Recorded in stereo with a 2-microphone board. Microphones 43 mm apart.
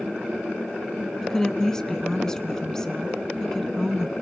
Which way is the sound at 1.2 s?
15° left (ahead or behind).